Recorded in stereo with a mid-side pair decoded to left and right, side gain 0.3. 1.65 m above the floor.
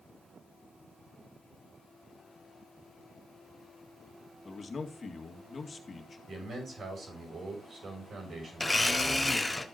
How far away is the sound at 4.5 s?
About 2.0 m.